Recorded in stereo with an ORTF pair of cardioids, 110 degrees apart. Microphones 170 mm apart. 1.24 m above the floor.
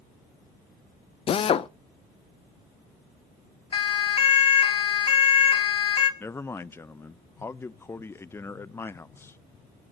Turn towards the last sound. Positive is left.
turn(degrees=15)